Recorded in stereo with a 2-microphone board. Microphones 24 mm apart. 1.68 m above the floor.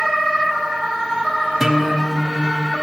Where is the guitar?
10° right (ahead or behind), 0.7 m.